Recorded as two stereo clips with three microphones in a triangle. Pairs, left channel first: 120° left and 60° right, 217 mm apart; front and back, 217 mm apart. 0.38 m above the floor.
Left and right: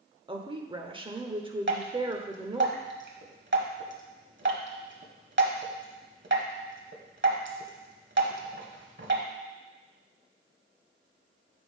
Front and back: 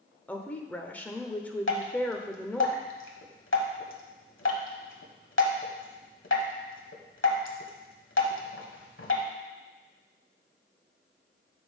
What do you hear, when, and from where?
0.3 s a woman speaking: 70° right, 0.8 m
1.7 s dripping: 25° right, 1.2 m